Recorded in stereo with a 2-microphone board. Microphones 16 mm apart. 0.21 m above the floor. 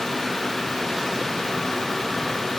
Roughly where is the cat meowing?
I don't hear a cat meowing.